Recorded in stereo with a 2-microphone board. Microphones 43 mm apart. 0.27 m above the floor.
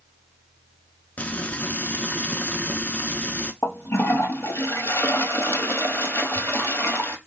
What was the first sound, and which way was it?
Frying, 40° left (ahead or behind).